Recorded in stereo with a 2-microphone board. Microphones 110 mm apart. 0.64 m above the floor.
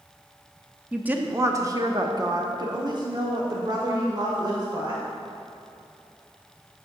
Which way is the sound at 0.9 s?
10° right (ahead or behind).